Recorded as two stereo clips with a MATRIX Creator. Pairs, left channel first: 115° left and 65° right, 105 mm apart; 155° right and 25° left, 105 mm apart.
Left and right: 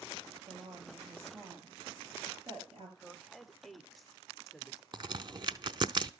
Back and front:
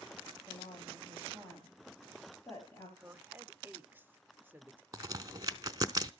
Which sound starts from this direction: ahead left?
A woman speaking, at 3.0 s.